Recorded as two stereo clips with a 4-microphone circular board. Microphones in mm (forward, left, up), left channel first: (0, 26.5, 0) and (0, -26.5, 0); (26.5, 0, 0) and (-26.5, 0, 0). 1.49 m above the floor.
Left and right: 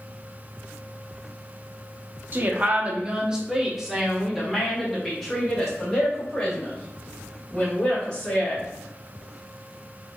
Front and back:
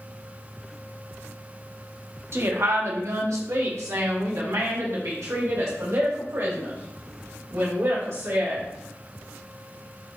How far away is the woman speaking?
About 0.9 m.